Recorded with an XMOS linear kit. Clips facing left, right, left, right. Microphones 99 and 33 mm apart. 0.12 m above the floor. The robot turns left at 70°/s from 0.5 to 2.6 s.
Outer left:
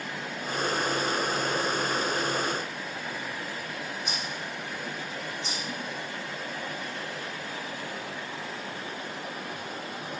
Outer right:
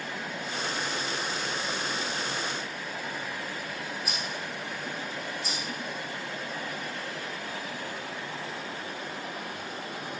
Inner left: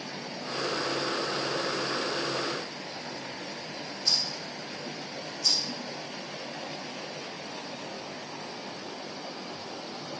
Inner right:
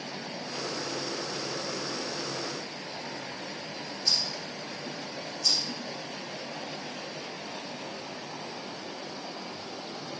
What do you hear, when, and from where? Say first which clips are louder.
4.0 s a rattle: even, even; 5° right (ahead or behind), 3.5 m